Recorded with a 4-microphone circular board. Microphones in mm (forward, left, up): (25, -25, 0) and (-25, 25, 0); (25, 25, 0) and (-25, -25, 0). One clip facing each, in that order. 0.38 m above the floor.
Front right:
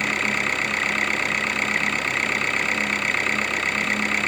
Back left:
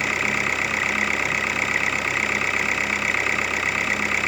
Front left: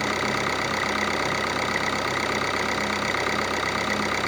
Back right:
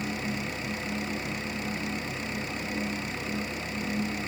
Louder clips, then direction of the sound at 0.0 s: Even, front left 8 dB; 50° left.